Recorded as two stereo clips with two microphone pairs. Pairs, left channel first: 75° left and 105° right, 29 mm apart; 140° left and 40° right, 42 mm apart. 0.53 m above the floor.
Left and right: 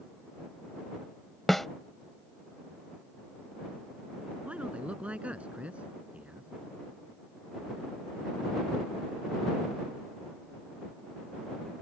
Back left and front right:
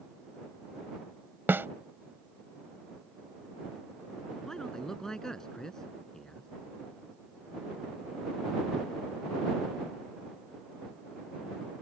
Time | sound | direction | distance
1.5 | a snare drum | 10° right | ?
4.4 | a man speaking | 140° right | ?